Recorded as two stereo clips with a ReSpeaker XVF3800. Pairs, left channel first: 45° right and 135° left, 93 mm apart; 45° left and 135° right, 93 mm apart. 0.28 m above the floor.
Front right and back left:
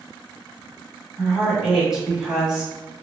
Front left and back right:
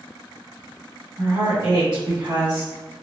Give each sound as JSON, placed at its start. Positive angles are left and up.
{"t": 1.2, "sound": "a woman speaking", "azimuth_deg": -150, "distance_m": 1.5}